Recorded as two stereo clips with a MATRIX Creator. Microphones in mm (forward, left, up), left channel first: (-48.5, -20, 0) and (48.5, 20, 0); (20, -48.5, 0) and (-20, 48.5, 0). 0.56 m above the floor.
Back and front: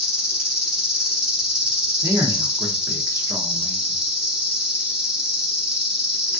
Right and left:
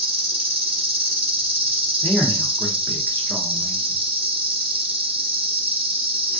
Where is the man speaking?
10° right, 0.8 m.